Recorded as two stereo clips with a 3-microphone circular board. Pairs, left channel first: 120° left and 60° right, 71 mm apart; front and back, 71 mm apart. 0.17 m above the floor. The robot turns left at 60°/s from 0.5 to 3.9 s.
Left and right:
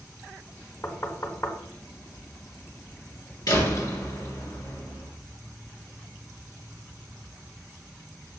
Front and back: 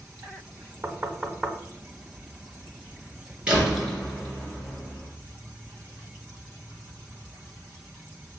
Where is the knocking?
145° left, 1.0 m; by 1.6 s 100° left, 1.0 m.